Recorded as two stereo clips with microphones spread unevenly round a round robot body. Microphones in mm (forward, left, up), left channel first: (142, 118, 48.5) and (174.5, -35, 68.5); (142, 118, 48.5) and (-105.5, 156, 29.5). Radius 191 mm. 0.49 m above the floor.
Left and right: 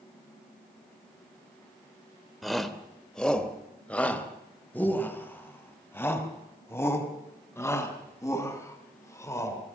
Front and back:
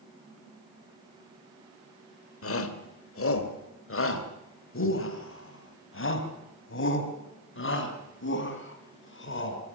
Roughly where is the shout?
Ahead.